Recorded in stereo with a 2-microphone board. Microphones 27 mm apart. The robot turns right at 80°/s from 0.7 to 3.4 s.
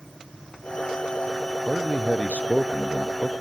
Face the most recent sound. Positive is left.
turn(degrees=155)